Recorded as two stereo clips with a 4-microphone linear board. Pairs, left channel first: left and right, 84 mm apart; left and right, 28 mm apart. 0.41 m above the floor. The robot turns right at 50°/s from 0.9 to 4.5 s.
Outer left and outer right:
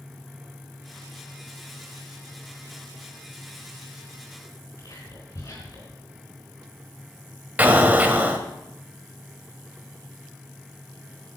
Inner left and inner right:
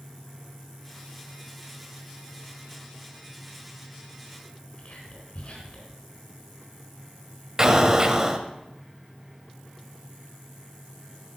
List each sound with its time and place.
4.8 s whispering: 55° left (ahead or behind), 4 m
7.6 s an explosion: 20° right (ahead or behind), 1.5 m